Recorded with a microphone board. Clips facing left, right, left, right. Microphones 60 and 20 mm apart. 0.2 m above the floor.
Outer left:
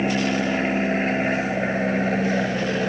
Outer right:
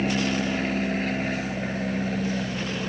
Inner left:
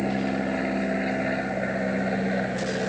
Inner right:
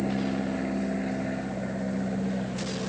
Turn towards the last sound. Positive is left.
turn(degrees=50)  # may be behind; listen again after turning